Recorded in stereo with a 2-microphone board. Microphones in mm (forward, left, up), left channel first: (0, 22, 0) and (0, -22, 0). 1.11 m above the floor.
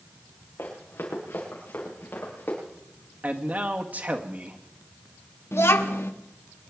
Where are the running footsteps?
65° left (ahead or behind), 5.5 m; by 2.6 s 55° left (ahead or behind), 8 m.